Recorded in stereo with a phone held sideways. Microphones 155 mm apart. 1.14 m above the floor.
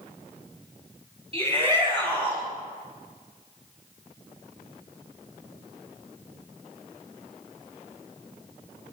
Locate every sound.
1.3 s a shout: 35° right (ahead or behind), 7 m; by 2.4 s 30° right (ahead or behind), 8 m